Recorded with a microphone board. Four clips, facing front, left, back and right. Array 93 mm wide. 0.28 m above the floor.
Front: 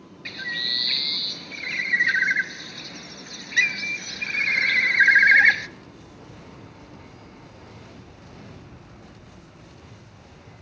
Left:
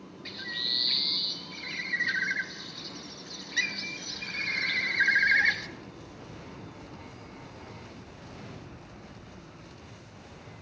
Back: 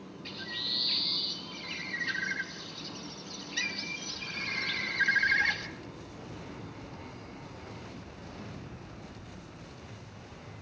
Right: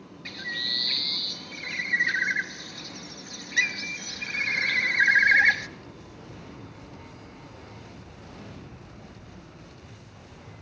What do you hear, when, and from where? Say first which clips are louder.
0.2 s a bird: right 5 dB, front 11 dB; 15° right, 0.7 m